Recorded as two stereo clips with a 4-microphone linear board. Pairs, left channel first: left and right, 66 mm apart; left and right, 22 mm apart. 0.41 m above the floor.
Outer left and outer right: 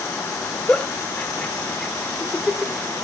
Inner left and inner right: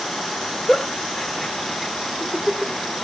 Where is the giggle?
15° left (ahead or behind), 1.3 m.